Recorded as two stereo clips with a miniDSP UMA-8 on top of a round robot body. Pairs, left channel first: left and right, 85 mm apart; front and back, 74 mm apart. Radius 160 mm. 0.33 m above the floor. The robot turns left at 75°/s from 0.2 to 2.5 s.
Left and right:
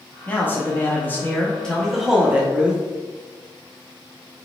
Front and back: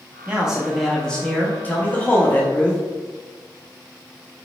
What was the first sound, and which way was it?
A man speaking, 125° left.